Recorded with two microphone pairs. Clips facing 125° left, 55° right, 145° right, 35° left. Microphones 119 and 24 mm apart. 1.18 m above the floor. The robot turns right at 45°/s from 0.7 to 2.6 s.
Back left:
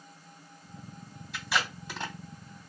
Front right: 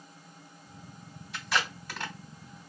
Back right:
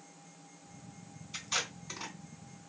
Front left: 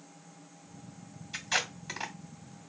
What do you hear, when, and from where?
1.3 s tape being pulled: 35° left, 1.6 m; by 2.1 s 70° left, 1.6 m